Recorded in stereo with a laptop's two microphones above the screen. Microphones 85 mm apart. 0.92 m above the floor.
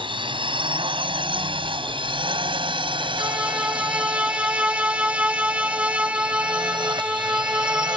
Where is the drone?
85° right; by 8.0 s 65° right (ahead or behind).